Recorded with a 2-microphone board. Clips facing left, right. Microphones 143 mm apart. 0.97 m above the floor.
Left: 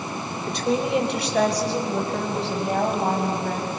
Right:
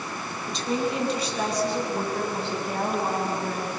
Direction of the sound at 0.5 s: 60° left (ahead or behind).